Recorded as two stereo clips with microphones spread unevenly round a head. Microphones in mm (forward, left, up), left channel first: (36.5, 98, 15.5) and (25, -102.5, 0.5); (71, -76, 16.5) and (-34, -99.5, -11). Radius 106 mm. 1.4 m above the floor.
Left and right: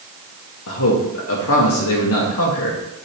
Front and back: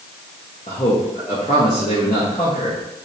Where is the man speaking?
75° left, 1.2 m.